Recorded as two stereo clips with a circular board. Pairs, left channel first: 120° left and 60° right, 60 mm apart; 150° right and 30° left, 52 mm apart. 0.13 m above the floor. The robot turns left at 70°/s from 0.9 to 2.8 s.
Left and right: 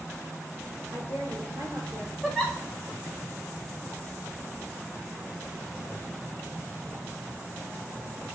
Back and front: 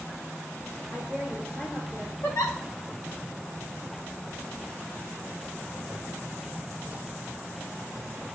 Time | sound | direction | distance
0.9 | a woman speaking | 35° right | 3.5 m
2.2 | a giggle | 140° right | 1.5 m